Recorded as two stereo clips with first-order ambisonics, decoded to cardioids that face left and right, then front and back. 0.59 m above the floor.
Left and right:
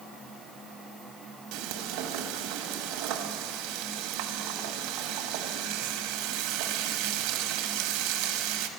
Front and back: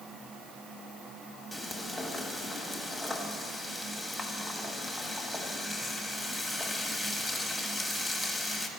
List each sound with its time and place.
1.5 s frying: 85° right, 1.1 m